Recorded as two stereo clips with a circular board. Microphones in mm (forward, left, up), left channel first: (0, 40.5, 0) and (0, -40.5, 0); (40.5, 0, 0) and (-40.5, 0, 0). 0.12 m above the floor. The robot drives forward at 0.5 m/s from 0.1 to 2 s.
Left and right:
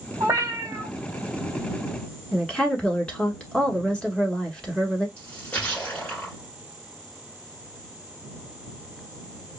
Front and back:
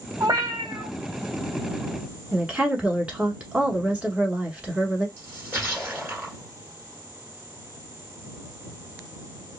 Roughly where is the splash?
Behind left.